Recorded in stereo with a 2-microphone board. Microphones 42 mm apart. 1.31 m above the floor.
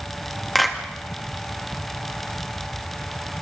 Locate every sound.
0.6 s a clap: 5° left (ahead or behind), 2 m